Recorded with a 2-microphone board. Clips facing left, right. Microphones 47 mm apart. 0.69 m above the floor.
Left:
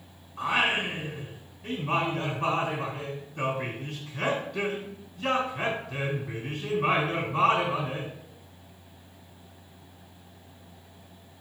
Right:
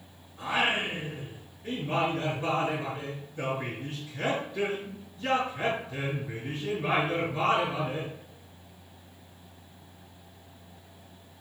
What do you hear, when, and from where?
0.4 s singing: 70° left (ahead or behind), 4 m